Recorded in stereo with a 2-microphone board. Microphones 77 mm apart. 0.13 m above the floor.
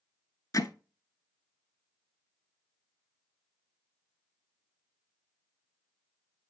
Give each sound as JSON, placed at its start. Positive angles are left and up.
{"t": 0.5, "sound": "hammering", "side_deg": 50, "distance_m": 0.7}